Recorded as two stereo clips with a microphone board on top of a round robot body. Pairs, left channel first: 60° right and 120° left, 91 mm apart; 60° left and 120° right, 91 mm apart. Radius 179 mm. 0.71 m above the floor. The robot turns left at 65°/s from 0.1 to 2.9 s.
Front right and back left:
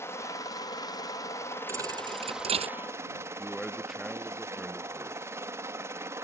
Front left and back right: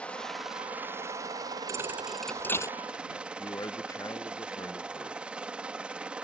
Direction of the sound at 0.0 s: 10° right.